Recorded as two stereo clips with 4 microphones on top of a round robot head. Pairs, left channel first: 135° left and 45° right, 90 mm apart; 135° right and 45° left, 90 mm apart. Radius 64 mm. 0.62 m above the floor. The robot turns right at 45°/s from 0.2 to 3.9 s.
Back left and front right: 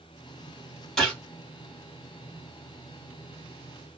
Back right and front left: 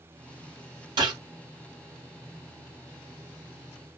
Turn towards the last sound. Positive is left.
turn(degrees=-175)